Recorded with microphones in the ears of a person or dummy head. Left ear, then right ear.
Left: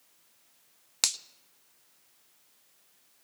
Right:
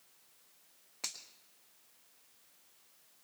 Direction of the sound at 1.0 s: 60° left (ahead or behind).